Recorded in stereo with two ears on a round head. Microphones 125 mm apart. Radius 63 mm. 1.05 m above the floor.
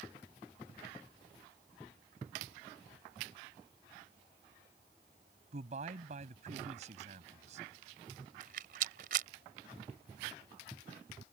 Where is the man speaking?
55° right (ahead or behind).